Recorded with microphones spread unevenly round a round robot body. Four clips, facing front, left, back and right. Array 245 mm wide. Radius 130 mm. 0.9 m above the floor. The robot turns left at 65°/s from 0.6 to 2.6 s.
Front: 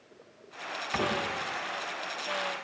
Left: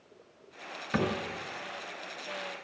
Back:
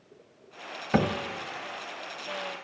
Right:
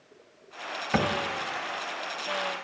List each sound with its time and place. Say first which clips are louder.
0.9 s a cupboard door: right 3 dB, back 5 dB; 170° right, 1.7 m; by 1.2 s 175° left, 1.7 m